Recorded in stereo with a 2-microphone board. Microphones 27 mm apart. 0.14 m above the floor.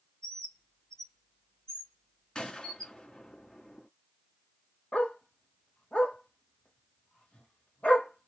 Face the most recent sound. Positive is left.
turn(degrees=55)  # may be behind; listen again after turning